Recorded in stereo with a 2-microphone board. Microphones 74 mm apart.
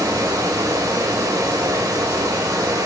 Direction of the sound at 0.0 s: 45° right (ahead or behind).